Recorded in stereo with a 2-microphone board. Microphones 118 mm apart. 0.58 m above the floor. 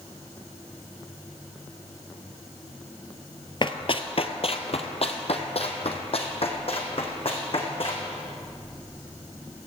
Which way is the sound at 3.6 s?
45° left (ahead or behind).